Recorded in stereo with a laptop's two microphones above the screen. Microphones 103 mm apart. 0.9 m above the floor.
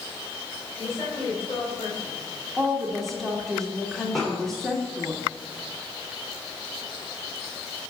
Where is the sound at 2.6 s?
5° left (ahead or behind), 1.9 m.